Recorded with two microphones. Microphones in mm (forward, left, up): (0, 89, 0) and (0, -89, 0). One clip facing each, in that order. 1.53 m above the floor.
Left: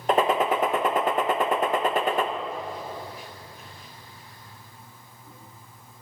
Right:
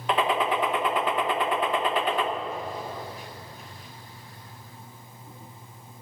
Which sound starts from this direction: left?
A gunshot, at 0.1 s.